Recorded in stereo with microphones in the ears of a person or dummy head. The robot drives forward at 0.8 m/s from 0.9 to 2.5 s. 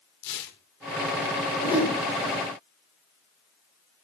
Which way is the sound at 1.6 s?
35° left (ahead or behind).